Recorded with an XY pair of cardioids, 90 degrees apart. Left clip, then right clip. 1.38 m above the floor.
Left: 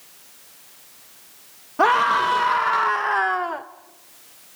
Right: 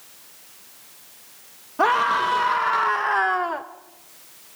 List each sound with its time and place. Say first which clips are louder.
1.8 s a scream: left 2 dB; 20° left, 2.5 m; by 3.6 s 10° right, 1.0 m